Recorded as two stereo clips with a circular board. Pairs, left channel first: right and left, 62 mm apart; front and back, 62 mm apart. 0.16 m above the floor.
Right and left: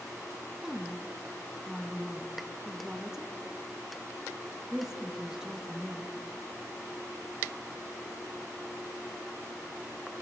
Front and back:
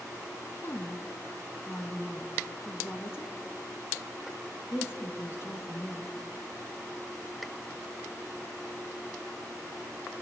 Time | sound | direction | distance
0.6 | a woman speaking | 15° left | 1.9 m